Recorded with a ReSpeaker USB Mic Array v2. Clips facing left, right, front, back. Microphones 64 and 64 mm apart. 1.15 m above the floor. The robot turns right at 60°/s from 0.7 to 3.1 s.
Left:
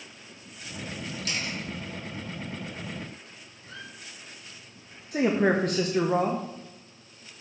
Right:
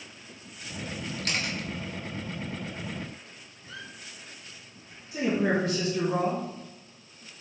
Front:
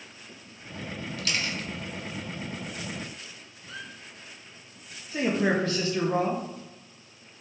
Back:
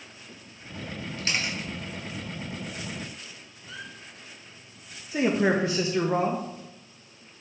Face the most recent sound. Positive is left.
turn(degrees=110)